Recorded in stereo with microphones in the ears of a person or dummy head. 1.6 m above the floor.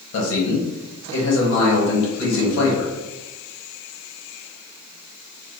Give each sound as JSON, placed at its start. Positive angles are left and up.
{"t": 0.1, "sound": "a man speaking", "side_deg": 60, "distance_m": 1.3}